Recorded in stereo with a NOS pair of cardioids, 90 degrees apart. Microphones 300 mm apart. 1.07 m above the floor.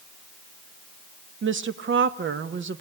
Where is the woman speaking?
40° right, 1.1 m.